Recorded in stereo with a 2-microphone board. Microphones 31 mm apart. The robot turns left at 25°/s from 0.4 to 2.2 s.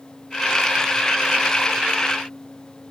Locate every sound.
Only background noise.